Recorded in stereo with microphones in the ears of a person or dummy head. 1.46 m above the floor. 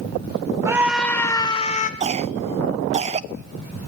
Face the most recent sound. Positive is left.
turn(degrees=-40)  # may be behind; listen again after turning